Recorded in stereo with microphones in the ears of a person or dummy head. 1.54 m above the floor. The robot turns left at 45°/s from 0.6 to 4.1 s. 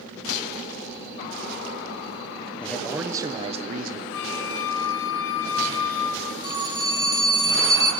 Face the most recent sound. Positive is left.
turn(degrees=-20)  # may be behind; listen again after turning